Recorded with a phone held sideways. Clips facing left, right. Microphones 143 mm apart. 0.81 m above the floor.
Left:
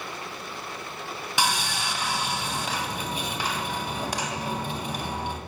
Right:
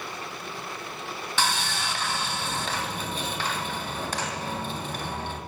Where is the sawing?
10° left (ahead or behind), 0.8 m.